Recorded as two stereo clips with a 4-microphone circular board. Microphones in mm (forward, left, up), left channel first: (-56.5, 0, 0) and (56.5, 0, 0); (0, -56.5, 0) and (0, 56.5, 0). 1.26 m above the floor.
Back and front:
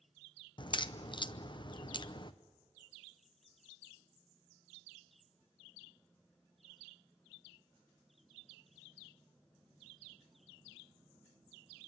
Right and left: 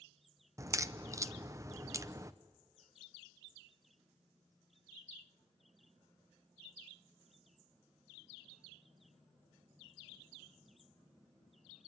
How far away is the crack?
About 0.7 m.